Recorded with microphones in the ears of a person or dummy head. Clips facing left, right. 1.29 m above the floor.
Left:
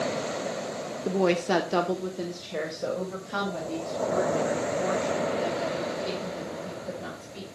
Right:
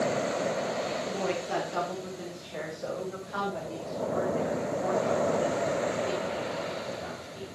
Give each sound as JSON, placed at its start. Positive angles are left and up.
{"t": 1.1, "sound": "a woman speaking", "side_deg": 50, "distance_m": 0.8}